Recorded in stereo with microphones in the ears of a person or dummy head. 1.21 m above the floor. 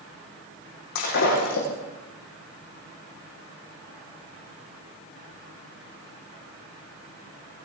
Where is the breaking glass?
65° left (ahead or behind), 8 m.